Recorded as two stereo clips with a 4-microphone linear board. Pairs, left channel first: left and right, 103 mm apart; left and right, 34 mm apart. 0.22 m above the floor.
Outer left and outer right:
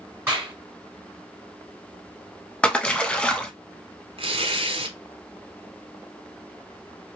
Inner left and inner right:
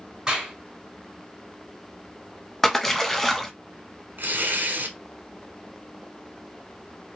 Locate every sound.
0.3 s a clap: 20° right (ahead or behind), 1.9 m
2.6 s a splash: 10° left (ahead or behind), 0.6 m
4.2 s tearing paper: 65° right (ahead or behind), 0.7 m